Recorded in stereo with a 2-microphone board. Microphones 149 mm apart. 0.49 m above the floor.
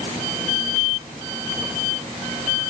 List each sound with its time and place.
Only background noise.